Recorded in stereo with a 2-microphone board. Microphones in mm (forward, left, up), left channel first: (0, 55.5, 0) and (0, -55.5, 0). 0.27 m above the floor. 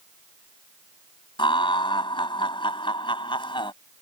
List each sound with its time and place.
1.4 s laughter: 50° left (ahead or behind)